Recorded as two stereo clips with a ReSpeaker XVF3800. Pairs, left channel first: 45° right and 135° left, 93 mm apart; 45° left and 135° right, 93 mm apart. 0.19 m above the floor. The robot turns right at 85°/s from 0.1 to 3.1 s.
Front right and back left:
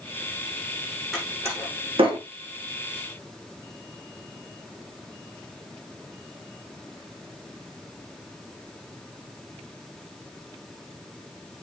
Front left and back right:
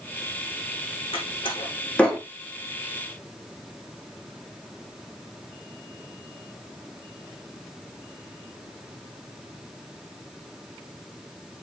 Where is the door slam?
45° left, 8.5 m; by 2.2 s 140° left, 8.5 m.